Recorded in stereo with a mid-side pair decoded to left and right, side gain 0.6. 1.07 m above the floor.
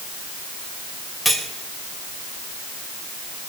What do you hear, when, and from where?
1.2 s cutlery clinking: 5° right, 2.5 m